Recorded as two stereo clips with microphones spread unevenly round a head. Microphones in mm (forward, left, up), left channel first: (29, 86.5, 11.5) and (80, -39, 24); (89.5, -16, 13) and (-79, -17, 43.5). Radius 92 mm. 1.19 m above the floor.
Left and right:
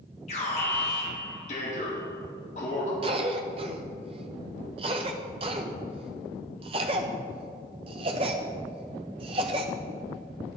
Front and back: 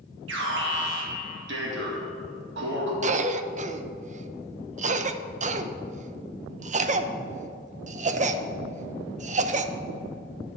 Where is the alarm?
160° left, 2.5 m.